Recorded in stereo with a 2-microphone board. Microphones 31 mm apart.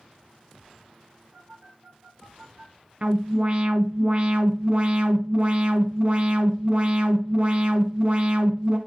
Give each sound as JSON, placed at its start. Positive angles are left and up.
{"t": 1.3, "sound": "a phone buzzing", "side_deg": -70, "distance_m": 5.0}
{"t": 3.0, "sound": "an alarm", "side_deg": -40, "distance_m": 1.3}